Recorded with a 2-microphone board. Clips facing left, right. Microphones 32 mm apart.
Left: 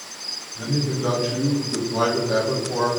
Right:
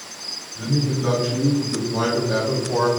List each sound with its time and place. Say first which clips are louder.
0.6 s a man speaking: right 2 dB; 25° left (ahead or behind), 1.6 m; by 2.9 s 15° right (ahead or behind), 0.8 m